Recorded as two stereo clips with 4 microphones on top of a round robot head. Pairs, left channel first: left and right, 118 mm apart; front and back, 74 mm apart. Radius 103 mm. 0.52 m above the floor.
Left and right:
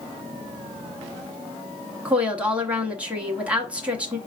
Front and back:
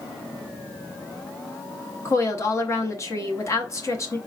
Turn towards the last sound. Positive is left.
turn(degrees=-15)